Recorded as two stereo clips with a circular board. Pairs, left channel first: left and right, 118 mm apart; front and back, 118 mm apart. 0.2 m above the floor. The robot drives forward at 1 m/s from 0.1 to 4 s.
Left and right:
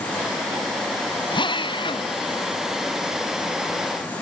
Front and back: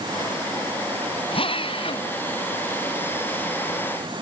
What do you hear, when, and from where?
1.3 s a drill: 40° left; by 2.1 s 45° left